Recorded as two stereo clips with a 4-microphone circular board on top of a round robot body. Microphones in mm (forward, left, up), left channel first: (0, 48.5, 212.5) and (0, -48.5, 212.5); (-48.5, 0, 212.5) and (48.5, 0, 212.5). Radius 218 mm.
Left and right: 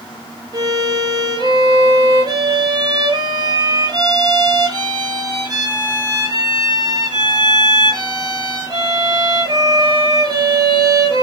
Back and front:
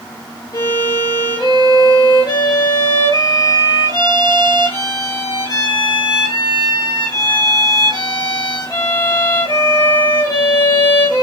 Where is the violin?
130° right, 5.5 m.